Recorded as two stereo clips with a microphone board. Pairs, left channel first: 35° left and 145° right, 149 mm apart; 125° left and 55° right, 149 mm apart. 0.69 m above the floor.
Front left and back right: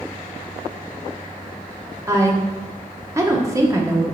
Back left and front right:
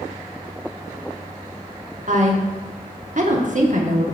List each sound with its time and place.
2.1 s a woman speaking: 80° right, 1.2 m